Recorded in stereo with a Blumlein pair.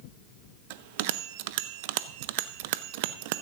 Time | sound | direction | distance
0.7 | a bell | 50° right | 0.6 m